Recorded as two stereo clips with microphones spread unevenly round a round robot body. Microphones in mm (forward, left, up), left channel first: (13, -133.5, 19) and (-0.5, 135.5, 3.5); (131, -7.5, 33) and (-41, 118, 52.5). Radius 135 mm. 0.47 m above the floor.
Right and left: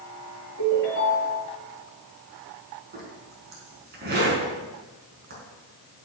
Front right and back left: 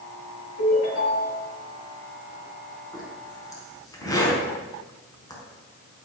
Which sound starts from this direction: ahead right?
A ringtone, at 0.6 s.